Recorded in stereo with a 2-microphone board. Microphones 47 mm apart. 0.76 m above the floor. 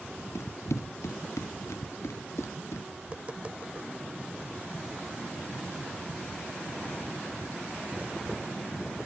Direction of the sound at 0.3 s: 85° left.